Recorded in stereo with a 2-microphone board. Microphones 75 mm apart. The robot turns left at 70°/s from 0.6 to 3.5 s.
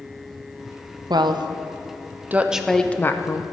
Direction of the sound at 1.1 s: 65° right (ahead or behind).